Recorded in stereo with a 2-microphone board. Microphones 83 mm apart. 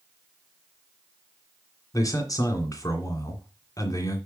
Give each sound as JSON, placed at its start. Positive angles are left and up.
{"t": 1.9, "sound": "a man speaking", "side_deg": 45, "distance_m": 2.0}